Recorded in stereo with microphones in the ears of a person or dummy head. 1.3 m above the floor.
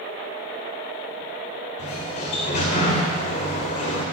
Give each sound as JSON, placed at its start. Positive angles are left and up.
{"t": 1.8, "sound": "a sliding door", "side_deg": 40, "distance_m": 1.6}